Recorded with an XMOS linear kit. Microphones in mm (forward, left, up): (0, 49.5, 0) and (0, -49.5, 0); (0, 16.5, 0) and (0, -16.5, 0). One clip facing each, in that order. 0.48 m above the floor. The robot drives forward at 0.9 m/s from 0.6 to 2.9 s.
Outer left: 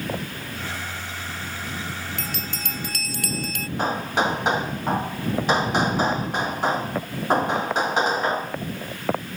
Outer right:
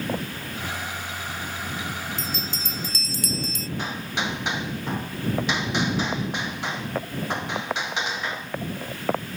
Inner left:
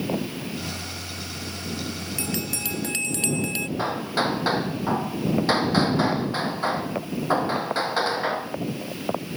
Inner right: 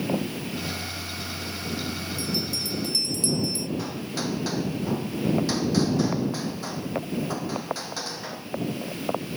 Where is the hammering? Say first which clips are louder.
Outer left 8 dB, inner left 6 dB; 40° left (ahead or behind).